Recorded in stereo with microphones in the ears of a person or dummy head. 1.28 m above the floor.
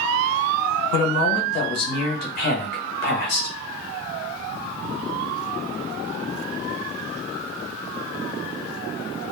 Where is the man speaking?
60° left (ahead or behind), 1.2 m.